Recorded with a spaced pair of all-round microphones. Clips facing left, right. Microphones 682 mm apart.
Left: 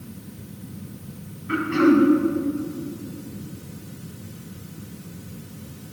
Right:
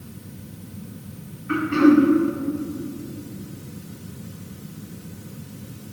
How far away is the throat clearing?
About 2 m.